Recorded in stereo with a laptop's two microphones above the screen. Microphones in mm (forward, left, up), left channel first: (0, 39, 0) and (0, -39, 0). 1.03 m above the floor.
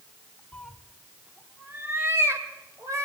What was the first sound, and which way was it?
A cat meowing, 20° left (ahead or behind).